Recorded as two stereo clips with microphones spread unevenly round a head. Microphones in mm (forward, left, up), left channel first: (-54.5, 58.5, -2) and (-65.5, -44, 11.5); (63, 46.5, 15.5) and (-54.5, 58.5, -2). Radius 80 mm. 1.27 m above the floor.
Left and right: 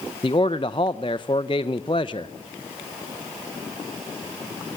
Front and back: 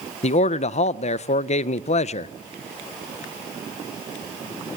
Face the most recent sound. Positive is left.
turn(degrees=20)